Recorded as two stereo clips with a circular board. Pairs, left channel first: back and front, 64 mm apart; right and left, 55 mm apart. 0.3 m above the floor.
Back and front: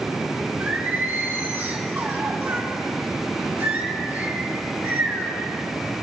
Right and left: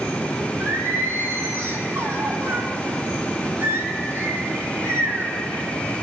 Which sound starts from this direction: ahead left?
Singing, at 0.6 s.